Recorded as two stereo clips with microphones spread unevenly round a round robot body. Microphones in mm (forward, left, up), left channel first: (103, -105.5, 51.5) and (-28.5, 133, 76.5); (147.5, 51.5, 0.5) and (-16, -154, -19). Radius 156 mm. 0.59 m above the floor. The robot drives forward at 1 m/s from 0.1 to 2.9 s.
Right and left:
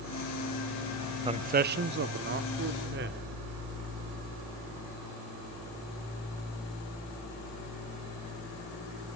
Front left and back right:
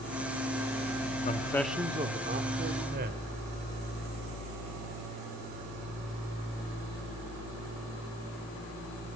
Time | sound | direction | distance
1.2 | a man speaking | 60° left | 0.6 m